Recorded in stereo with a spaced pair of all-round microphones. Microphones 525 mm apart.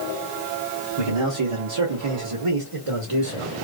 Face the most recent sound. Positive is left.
turn(degrees=-65)  # may be behind; listen again after turning